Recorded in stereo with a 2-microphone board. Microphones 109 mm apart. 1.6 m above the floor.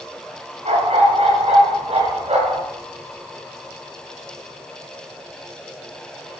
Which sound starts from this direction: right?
A dog barking, at 0.7 s.